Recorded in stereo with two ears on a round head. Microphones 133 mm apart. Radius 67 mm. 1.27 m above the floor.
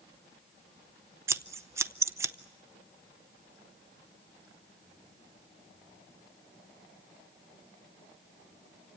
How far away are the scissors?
About 0.5 m.